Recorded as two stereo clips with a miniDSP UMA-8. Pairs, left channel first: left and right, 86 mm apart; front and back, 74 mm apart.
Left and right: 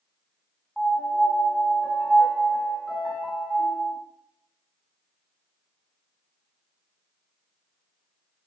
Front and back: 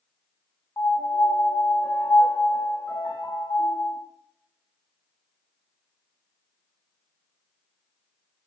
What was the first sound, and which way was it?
A piano, 5° right.